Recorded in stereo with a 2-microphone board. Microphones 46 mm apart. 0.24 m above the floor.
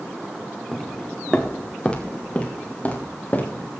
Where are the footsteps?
5° left (ahead or behind), 2.5 m; by 3.7 s 35° left (ahead or behind), 4.5 m.